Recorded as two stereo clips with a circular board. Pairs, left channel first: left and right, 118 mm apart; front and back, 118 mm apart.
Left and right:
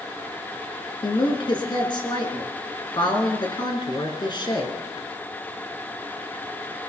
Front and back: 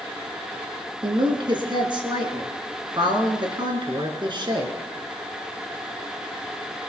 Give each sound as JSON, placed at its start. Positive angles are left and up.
{"t": 1.0, "sound": "a woman speaking", "azimuth_deg": 135, "distance_m": 3.0}